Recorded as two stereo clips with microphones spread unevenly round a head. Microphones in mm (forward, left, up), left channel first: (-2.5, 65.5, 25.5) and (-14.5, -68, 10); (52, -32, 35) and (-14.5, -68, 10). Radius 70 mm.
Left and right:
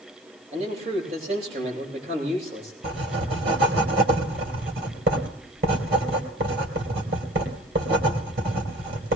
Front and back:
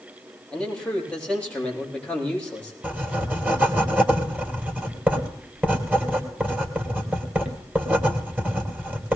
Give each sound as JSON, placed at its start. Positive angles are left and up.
{"t": 0.5, "sound": "a man speaking", "azimuth_deg": -50, "distance_m": 8.5}
{"t": 2.8, "sound": "writing", "azimuth_deg": -75, "distance_m": 3.0}